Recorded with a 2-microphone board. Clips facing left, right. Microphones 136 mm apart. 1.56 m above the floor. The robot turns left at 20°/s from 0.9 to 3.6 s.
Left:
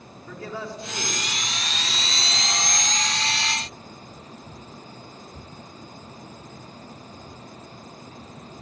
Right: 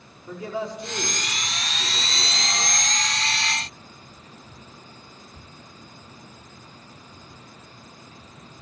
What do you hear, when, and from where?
0.3 s a man speaking: 20° right, 5 m; by 2.8 s 55° right, 5 m